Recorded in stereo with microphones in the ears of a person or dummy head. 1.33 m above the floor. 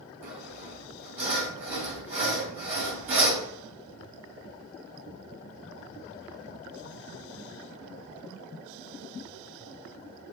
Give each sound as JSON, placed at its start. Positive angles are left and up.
{"t": 0.2, "sound": "sawing", "side_deg": -5, "distance_m": 1.5}